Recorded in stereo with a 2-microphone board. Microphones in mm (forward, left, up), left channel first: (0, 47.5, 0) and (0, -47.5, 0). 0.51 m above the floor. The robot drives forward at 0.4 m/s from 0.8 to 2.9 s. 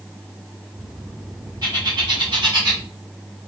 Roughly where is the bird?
Right.